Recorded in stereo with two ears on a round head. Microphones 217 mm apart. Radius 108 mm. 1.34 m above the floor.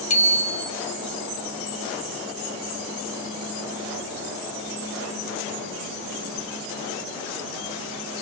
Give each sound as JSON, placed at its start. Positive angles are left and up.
{"t": 0.1, "sound": "a bicycle bell", "side_deg": 30, "distance_m": 4.5}